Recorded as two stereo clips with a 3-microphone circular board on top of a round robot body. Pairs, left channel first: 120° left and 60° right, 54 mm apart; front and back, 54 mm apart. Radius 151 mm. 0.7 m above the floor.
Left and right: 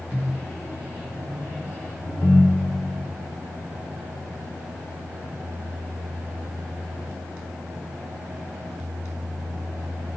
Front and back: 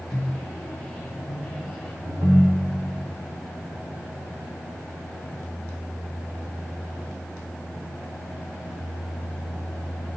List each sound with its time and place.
0.1 s a microwave: 85° left, 3.5 m
2.0 s a ringtone: 170° left, 1.8 m